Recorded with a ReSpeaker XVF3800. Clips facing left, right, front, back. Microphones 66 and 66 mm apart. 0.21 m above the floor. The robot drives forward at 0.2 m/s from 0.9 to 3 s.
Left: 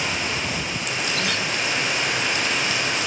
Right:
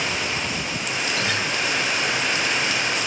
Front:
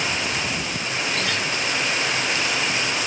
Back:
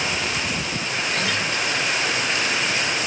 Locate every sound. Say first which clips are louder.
1.1 s a guitar: right 2 dB, back 2 dB; 95° right, 1.1 m; by 1.5 s 100° right, 1.1 m